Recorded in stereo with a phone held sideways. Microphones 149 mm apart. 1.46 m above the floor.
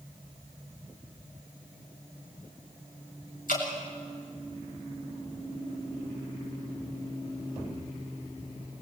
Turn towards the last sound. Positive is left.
turn(degrees=85)